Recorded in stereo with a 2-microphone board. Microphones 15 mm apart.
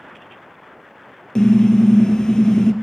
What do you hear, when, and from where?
1.4 s a car horn: 50° left (ahead or behind), 2.5 m